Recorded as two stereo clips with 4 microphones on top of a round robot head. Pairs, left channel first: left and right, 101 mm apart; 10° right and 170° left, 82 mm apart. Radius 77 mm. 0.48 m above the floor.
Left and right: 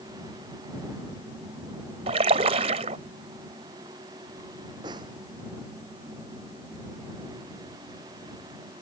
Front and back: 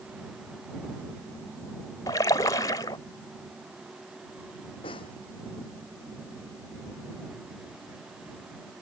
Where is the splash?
65° right.